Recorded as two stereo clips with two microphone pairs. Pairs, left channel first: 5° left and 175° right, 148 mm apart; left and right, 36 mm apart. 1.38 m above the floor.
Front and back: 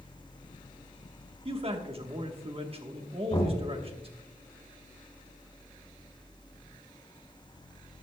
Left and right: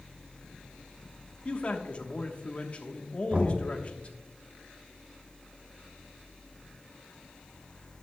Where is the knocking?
40° right, 2.5 m.